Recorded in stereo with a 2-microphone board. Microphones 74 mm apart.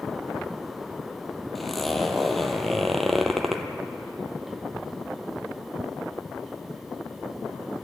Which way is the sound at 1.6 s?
Centre (ahead or behind).